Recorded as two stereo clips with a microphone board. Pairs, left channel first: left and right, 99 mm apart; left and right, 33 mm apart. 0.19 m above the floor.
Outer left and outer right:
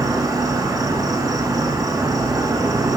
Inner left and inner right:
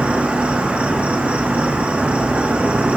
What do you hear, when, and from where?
0.0 s an insect: 40° right (ahead or behind), 1.3 m